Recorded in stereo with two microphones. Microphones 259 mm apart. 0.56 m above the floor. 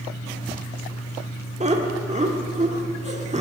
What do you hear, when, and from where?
1.6 s laughter: 25° right (ahead or behind), 1.1 m